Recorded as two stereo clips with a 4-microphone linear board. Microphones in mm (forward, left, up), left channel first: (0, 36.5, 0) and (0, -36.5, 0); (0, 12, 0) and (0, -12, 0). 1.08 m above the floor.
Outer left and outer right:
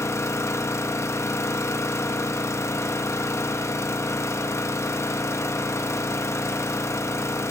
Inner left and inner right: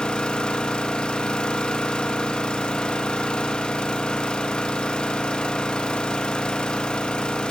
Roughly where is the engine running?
Left.